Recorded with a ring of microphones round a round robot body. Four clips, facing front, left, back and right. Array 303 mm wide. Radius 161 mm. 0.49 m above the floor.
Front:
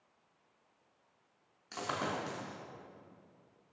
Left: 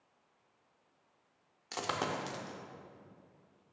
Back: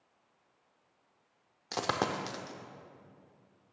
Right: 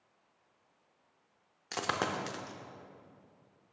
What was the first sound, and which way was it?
A dropped coin, 165° right.